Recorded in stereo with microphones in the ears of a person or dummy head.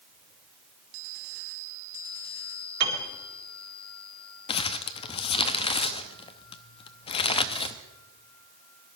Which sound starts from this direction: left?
Crumpling, at 4.5 s.